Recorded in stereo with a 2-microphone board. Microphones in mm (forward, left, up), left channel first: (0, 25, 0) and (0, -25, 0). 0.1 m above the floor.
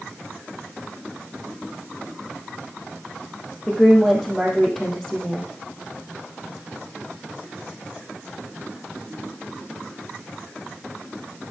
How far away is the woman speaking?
About 3.5 m.